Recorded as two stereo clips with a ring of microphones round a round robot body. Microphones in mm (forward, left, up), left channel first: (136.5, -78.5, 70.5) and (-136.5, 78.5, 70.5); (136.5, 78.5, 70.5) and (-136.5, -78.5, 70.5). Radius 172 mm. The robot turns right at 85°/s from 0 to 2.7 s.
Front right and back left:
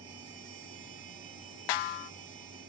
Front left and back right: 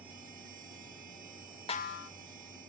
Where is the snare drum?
45° right, 0.6 m; by 2.1 s 10° right, 0.6 m.